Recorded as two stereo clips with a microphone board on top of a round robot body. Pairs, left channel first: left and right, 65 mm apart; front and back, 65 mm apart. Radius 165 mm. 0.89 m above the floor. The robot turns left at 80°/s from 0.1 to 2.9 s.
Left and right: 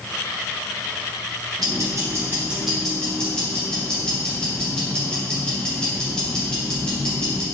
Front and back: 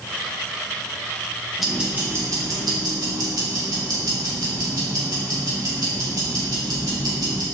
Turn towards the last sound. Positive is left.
turn(degrees=165)